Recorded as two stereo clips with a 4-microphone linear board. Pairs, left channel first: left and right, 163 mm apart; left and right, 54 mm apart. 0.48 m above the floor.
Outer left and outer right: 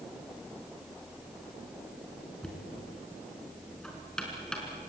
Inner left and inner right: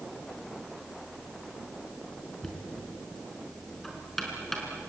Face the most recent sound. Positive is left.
turn(degrees=5)  # may be behind; listen again after turning